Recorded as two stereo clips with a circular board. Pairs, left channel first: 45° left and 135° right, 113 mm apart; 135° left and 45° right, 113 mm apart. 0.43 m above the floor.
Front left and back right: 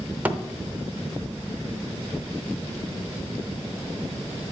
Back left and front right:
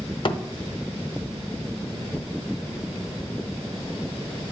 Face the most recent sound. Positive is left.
turn(degrees=155)